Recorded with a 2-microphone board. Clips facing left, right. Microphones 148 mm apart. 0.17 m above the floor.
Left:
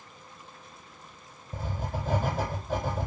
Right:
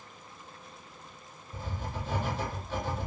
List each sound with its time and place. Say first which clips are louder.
1.5 s writing: left 4 dB; 50° left (ahead or behind), 0.8 m